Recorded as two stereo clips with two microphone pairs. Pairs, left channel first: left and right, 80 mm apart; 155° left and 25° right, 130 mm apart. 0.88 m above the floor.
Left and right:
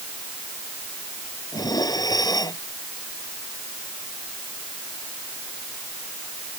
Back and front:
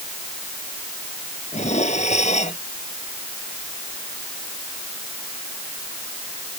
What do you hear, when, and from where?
1.5 s dishes clattering: 130° left